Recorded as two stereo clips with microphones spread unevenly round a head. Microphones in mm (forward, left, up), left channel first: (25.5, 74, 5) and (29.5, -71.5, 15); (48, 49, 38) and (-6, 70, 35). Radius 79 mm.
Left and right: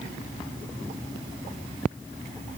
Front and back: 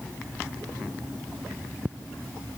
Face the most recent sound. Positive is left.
No sound to turn to.